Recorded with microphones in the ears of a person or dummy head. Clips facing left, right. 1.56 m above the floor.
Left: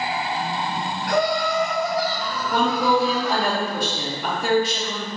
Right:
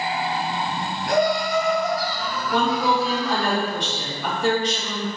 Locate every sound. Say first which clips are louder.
1.1 s laughter: right 1 dB; 25° right (ahead or behind), 0.9 m; by 3.5 s 70° left (ahead or behind), 1.0 m
2.5 s a woman speaking: left 1 dB; 15° left (ahead or behind), 0.8 m